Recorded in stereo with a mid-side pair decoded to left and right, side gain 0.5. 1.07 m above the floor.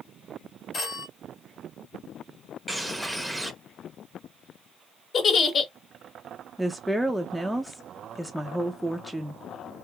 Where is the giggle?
45° left, 1.0 m.